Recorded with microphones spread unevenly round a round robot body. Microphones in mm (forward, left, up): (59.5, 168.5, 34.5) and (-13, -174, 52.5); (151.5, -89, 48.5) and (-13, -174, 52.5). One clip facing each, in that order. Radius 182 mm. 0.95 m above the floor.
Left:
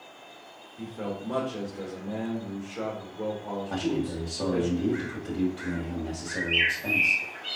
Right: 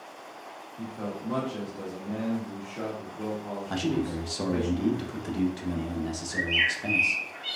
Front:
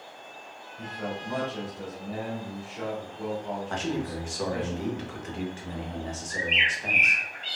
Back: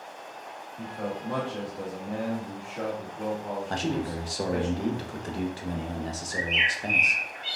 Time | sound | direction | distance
0.8 | a man speaking | 165° left | 1.8 m
3.7 | a man speaking | 125° right | 1.0 m
6.3 | a bird | 70° right | 1.8 m